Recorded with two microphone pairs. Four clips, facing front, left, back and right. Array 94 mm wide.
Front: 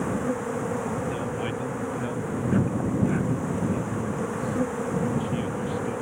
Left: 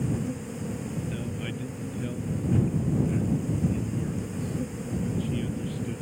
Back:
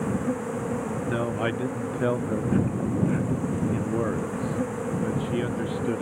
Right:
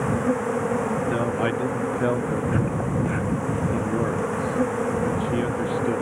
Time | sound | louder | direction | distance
0.0 | an insect | right 8 dB, even | 70° right | ?
1.1 | a man speaking | right 11 dB, back 2 dB | 125° right | ?